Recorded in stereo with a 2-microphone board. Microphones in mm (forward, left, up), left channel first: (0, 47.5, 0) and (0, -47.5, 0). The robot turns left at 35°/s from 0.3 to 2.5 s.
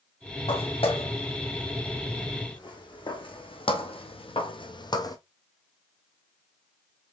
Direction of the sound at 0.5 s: 70° left (ahead or behind).